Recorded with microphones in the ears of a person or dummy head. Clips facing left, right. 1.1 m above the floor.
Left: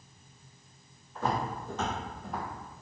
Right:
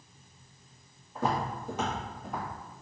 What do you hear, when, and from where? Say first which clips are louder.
1.1 s footsteps: right 1 dB; 25° right (ahead or behind), 1.7 m; by 2.5 s 5° left (ahead or behind), 1.3 m